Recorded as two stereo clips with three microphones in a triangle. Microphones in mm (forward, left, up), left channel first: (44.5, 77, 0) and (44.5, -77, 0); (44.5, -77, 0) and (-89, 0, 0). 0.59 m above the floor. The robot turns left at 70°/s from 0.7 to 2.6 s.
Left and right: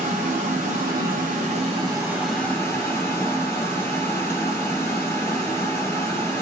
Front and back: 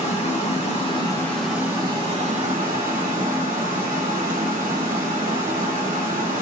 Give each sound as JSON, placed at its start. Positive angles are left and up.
{"t": 0.0, "sound": "running water", "azimuth_deg": -65, "distance_m": 1.3}